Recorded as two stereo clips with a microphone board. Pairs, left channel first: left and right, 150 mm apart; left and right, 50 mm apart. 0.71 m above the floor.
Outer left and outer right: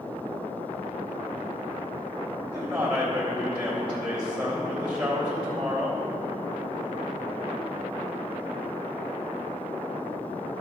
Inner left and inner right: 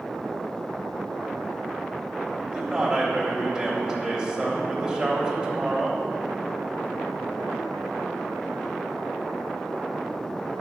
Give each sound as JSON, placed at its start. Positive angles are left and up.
{"t": 2.5, "sound": "a man speaking", "side_deg": -5, "distance_m": 3.0}